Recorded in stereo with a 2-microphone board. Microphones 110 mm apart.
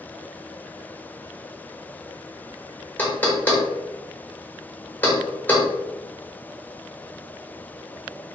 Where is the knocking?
15° left (ahead or behind), 0.6 m.